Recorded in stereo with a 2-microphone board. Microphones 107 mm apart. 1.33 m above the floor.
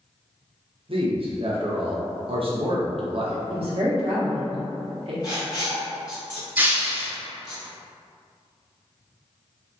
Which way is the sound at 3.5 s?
65° right (ahead or behind).